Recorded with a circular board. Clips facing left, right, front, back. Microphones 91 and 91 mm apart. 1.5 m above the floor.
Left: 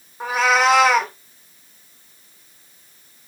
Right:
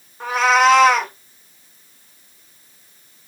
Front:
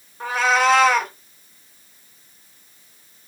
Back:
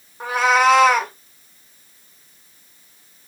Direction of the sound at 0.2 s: 150° left.